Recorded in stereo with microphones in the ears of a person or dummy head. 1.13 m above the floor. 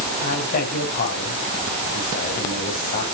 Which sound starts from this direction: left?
A man speaking, at 0.2 s.